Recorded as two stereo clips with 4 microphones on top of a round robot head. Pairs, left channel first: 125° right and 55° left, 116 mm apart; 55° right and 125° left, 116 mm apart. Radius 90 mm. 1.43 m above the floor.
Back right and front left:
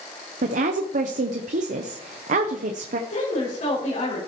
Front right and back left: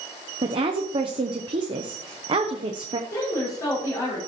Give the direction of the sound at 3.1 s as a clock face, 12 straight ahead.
4 o'clock.